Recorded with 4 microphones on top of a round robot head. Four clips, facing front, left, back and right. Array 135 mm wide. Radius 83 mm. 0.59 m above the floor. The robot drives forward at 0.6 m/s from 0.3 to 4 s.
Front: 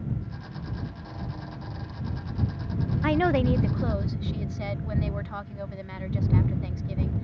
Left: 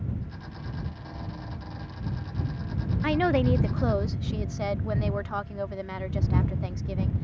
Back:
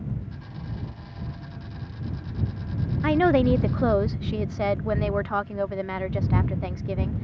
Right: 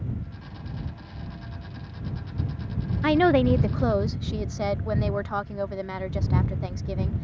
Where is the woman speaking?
100° right; by 7.2 s 165° right.